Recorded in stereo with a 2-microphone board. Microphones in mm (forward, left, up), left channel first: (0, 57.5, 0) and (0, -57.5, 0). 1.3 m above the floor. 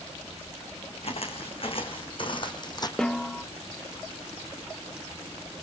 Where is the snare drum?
5° left (ahead or behind), 0.6 m.